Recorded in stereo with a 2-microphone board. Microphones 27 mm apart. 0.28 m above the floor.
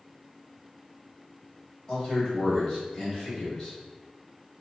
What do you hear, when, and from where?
1.9 s a man speaking: 30° left (ahead or behind), 1.5 m